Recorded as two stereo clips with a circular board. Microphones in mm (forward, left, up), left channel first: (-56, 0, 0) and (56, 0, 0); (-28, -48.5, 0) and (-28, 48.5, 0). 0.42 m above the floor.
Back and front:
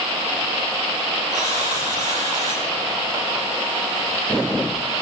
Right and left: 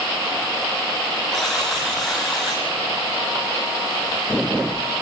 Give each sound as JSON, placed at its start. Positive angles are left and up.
{"t": 1.3, "sound": "a buzzer", "azimuth_deg": 0, "distance_m": 7.0}